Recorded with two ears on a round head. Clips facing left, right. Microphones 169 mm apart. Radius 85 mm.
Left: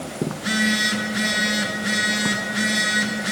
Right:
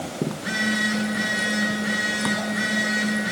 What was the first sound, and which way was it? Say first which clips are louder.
A phone buzzing: left 3 dB; 70° left (ahead or behind).